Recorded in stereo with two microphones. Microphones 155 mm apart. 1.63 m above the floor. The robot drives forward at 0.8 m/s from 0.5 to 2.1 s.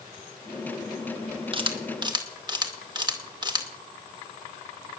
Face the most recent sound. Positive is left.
turn(degrees=-30)  # may be behind; listen again after turning